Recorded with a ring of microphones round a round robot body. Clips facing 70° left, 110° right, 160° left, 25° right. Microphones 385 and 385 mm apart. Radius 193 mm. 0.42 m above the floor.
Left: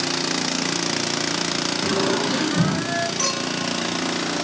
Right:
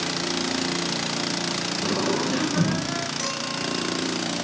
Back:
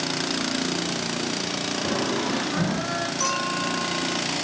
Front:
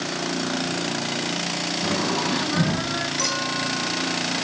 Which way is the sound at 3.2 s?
10° right.